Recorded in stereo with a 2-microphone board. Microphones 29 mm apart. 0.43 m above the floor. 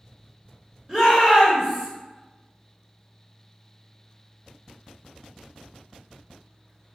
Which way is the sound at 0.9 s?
25° right (ahead or behind).